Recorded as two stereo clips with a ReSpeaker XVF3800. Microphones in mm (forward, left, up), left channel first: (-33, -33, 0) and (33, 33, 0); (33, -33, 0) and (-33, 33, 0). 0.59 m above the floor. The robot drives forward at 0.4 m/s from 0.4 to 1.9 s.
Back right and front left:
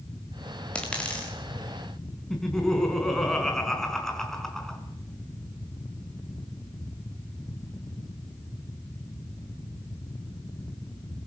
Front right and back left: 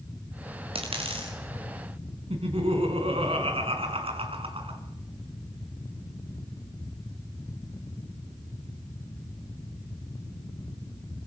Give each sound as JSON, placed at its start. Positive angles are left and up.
{"t": 0.8, "sound": "a dropped coin", "azimuth_deg": 145, "distance_m": 6.0}
{"t": 2.3, "sound": "laughter", "azimuth_deg": 140, "distance_m": 5.5}